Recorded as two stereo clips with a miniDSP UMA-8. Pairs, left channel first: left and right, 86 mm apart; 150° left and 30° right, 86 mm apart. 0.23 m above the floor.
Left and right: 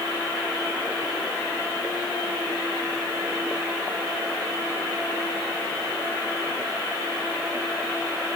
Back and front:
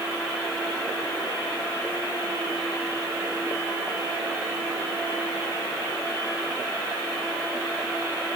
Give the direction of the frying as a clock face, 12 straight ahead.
No frying in this recording.